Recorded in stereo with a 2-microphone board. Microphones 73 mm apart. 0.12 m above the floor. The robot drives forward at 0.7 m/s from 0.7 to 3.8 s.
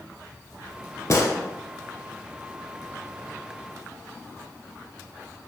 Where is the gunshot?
45° left (ahead or behind), 0.6 m; by 1.3 s 40° left (ahead or behind), 0.6 m.